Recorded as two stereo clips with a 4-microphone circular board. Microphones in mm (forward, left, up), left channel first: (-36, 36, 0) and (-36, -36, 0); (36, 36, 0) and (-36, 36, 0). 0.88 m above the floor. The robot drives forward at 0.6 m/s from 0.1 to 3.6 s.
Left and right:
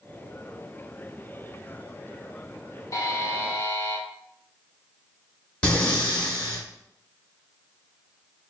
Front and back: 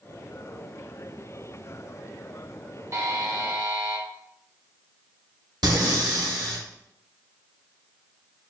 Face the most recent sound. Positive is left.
turn(degrees=165)